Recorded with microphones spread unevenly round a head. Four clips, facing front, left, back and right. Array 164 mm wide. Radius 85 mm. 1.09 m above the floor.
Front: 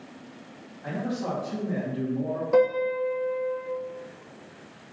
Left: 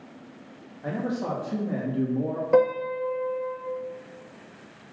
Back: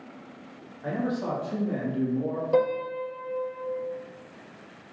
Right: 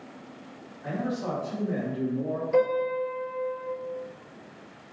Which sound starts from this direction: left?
A piano, at 2.5 s.